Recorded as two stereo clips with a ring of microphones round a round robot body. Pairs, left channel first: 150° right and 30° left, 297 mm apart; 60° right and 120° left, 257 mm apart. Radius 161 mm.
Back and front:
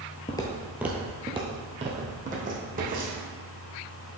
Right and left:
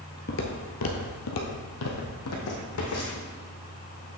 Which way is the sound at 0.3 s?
85° right.